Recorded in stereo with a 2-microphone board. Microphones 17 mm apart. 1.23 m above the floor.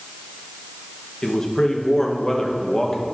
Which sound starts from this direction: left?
A man speaking, at 1.2 s.